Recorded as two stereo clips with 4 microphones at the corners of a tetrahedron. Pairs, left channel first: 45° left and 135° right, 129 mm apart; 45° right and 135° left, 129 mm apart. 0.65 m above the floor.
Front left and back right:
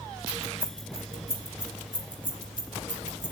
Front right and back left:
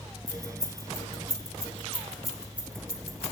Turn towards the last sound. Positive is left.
turn(degrees=75)